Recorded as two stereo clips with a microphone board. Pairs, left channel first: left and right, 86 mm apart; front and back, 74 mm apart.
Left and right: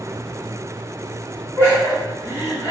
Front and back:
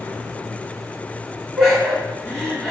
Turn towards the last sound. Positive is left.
turn(degrees=105)